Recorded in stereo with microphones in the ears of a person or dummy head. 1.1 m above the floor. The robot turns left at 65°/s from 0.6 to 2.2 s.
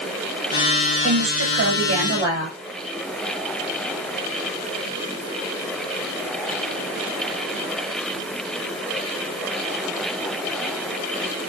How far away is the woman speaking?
About 5 m.